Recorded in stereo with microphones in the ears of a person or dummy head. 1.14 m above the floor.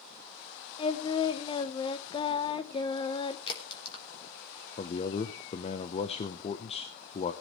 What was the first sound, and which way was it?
Singing, 20° left (ahead or behind).